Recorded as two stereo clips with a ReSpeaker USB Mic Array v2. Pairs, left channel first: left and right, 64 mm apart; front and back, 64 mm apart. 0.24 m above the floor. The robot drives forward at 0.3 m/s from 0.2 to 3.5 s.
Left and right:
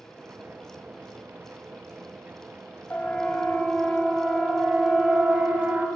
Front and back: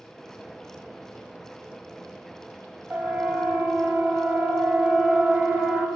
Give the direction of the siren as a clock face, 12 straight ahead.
8 o'clock.